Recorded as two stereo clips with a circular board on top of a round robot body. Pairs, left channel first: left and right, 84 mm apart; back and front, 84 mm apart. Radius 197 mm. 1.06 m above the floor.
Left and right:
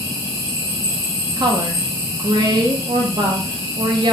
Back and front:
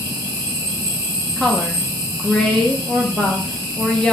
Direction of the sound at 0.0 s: 150° left.